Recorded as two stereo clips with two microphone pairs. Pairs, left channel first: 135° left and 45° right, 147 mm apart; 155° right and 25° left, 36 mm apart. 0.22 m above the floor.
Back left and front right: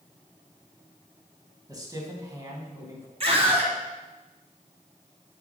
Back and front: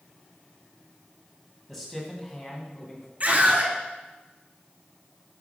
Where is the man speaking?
75° right, 1.8 m; by 3.1 s 110° right, 2.5 m.